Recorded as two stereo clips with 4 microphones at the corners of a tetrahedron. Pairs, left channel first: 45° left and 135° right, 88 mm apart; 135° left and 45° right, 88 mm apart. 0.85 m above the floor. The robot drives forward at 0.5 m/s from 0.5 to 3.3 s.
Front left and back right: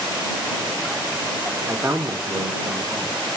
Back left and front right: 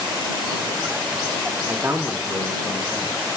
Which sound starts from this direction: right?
A man speaking, at 1.7 s.